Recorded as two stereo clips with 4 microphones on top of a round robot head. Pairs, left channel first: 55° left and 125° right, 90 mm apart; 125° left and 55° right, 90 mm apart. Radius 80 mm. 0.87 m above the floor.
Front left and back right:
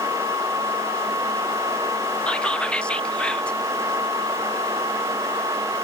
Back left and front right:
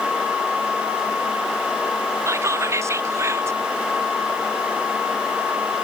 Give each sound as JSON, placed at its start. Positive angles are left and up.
{"t": 2.3, "sound": "whispering", "azimuth_deg": -15, "distance_m": 0.7}